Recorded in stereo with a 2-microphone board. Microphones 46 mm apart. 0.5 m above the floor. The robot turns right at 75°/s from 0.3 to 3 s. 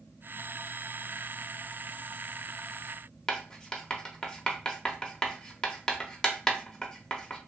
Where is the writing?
15° left (ahead or behind), 0.6 m.